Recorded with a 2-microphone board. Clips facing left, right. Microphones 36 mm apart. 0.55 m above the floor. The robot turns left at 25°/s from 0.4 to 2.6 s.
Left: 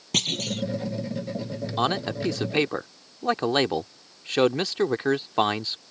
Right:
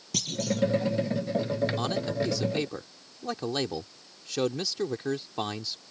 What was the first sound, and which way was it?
A clunk, 55° left (ahead or behind).